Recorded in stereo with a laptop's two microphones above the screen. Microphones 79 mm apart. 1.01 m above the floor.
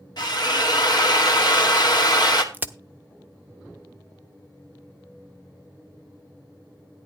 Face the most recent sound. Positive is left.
turn(degrees=-20)  # may be behind; listen again after turning